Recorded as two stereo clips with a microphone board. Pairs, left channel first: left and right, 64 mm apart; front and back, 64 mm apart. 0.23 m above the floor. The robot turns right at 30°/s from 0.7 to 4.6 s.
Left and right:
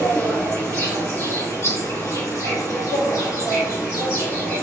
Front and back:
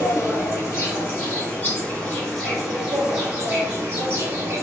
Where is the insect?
35° left, 1.9 m; by 4.6 s 150° left, 1.9 m.